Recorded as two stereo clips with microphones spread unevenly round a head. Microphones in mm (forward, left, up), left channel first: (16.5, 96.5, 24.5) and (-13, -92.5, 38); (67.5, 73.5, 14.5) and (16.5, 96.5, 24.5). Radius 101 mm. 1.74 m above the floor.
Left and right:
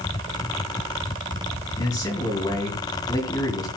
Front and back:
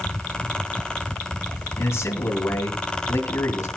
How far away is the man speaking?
About 3 m.